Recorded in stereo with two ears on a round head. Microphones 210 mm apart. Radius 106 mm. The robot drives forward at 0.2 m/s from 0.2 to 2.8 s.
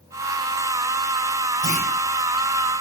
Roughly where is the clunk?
Left.